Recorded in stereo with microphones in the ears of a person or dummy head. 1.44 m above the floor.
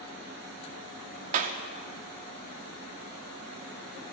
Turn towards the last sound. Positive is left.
turn(degrees=-40)  # may be behind; listen again after turning